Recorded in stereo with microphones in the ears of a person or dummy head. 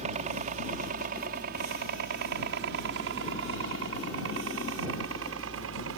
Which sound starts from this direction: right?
A helicopter, at 0.0 s.